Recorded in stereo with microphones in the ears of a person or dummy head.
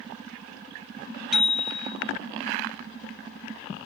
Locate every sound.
1.3 s a bicycle bell: 5° right (ahead or behind), 2 m